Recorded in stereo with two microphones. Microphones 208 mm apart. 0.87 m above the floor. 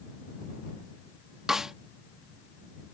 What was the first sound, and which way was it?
A snare drum, centre (ahead or behind).